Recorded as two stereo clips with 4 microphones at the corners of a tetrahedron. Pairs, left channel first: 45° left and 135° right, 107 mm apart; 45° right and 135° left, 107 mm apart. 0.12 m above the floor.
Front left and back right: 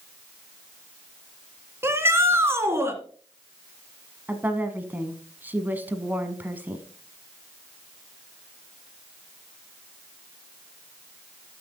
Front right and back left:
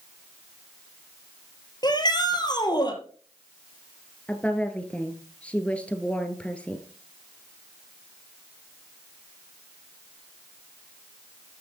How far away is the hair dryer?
No hair dryer in this recording.